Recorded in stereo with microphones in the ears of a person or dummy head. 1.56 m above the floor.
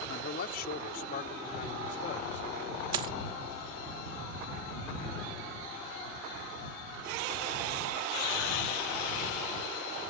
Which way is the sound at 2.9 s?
20° right (ahead or behind).